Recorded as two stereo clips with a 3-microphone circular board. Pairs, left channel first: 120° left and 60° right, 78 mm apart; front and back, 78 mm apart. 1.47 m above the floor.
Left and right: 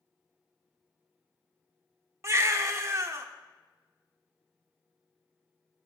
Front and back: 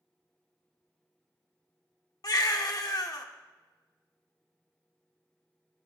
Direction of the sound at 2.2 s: 20° right.